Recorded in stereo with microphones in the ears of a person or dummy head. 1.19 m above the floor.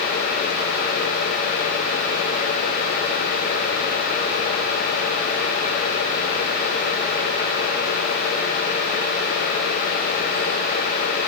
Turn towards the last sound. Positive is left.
No sound to turn to.